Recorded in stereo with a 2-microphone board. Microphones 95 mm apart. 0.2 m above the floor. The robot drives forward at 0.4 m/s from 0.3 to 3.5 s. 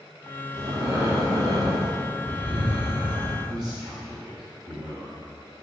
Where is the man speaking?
45° right (ahead or behind), 2 m.